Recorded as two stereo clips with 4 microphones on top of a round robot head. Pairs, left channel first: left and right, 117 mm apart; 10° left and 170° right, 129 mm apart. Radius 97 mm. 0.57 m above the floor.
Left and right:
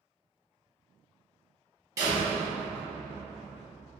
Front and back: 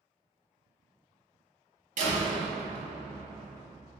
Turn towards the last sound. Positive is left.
turn(degrees=-155)